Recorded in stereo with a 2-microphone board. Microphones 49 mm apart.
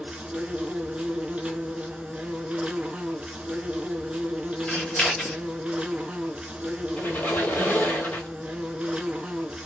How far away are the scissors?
About 1.4 m.